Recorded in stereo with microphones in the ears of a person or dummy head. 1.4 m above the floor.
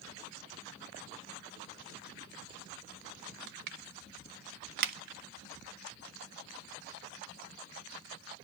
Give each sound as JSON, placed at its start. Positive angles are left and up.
{"t": 3.5, "sound": "crushing", "side_deg": -60, "distance_m": 1.2}